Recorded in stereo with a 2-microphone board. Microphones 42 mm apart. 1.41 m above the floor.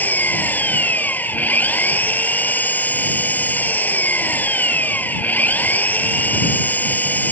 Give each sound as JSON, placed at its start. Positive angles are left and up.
{"t": 0.0, "sound": "an engine running", "side_deg": 45}